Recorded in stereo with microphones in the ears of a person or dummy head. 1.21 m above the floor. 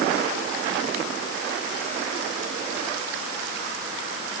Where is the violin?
No violin in this recording.